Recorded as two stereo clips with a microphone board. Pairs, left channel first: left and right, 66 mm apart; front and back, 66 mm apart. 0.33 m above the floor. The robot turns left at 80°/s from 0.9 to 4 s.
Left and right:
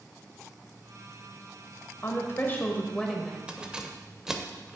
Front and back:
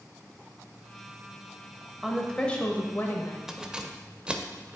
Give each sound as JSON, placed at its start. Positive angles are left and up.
{"t": 2.0, "sound": "a woman speaking", "azimuth_deg": 100, "distance_m": 1.0}
{"t": 3.5, "sound": "keys jangling", "azimuth_deg": -115, "distance_m": 0.5}